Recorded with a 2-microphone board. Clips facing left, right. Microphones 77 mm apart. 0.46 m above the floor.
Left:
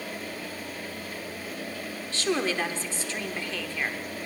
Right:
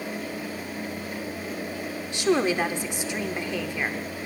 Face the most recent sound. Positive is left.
turn(degrees=-15)  # may be behind; listen again after turning